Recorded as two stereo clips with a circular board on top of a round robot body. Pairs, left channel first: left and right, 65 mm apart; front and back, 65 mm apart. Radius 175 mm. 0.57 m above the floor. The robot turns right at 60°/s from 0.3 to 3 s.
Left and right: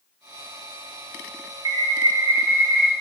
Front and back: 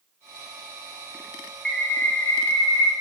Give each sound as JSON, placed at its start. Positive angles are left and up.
{"t": 1.6, "sound": "a bird", "azimuth_deg": -80, "distance_m": 0.6}